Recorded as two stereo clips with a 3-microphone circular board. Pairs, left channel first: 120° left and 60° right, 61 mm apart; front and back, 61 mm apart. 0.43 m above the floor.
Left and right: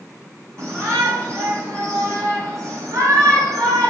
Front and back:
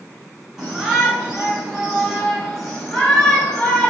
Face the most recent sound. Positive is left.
turn(degrees=-75)